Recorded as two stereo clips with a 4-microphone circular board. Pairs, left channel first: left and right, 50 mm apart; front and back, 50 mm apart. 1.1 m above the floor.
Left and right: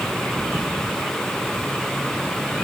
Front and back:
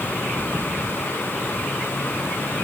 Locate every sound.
Only background noise.